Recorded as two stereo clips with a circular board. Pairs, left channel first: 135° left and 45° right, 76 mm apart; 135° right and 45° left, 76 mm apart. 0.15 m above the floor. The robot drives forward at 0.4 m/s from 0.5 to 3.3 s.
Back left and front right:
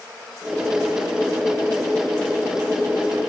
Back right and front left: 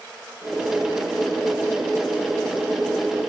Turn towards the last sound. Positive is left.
No sound to turn to.